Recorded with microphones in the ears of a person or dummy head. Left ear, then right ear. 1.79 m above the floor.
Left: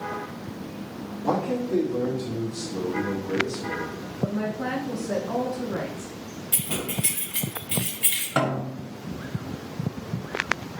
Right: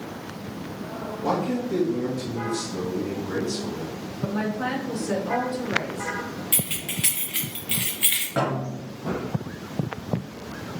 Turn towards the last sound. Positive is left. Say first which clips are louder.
# even
turn(degrees=40)  # may be behind; listen again after turning